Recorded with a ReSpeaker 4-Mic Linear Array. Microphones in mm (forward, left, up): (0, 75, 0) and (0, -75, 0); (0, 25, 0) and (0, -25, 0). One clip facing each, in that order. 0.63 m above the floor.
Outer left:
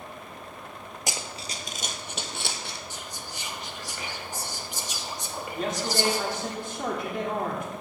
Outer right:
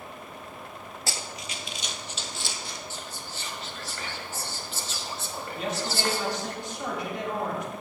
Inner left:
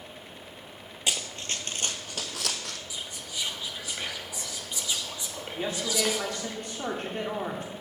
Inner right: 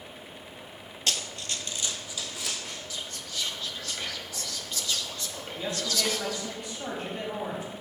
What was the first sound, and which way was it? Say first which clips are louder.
Running footsteps: outer left 2 dB, inner left 1 dB; 15° left (ahead or behind).